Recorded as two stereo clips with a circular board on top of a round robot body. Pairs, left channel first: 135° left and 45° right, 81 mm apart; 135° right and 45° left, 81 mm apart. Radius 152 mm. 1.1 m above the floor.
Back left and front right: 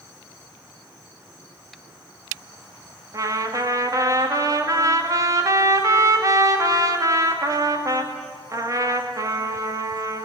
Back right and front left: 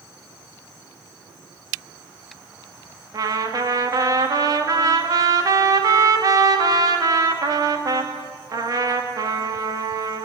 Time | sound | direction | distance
3.1 | a trumpet | straight ahead | 2.5 m